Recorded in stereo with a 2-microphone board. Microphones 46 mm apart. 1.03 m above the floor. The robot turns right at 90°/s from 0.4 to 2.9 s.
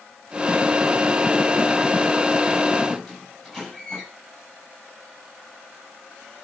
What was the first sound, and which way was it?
A squeak, 5° left (ahead or behind).